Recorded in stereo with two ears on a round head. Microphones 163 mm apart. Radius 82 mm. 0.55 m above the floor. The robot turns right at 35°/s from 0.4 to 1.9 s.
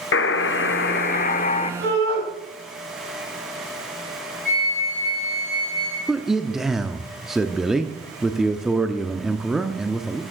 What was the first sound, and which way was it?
A buzzer, 100° left.